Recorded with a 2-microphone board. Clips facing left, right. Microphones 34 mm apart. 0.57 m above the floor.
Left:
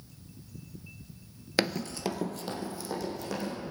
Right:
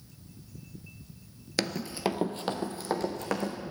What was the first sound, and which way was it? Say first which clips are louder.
Running footsteps: left 1 dB; 20° left (ahead or behind).